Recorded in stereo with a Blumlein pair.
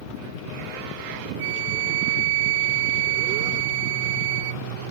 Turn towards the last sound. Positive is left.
turn(degrees=-50)